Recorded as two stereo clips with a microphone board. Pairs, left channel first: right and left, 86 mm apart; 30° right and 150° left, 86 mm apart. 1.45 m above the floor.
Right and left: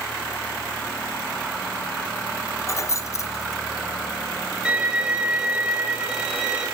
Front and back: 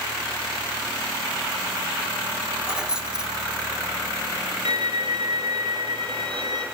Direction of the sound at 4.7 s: 165° left.